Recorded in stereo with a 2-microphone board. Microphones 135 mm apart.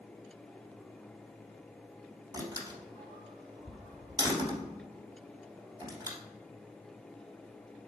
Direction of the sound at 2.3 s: 30° right (ahead or behind).